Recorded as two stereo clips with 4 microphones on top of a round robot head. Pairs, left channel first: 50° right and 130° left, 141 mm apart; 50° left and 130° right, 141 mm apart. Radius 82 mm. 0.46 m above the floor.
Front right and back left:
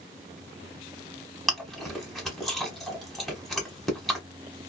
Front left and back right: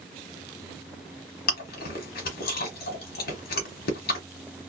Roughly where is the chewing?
Ahead left.